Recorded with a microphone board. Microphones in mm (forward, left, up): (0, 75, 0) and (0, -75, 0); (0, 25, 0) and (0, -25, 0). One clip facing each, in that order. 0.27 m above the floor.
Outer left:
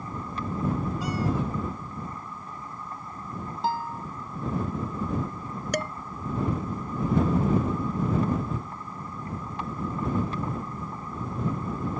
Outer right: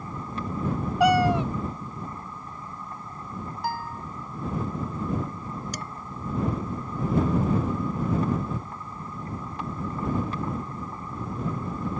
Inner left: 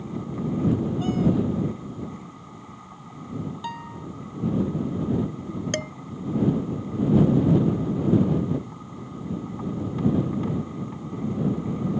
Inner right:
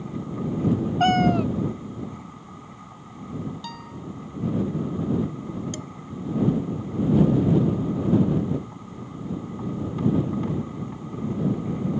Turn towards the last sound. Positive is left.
turn(degrees=70)  # may be behind; listen again after turning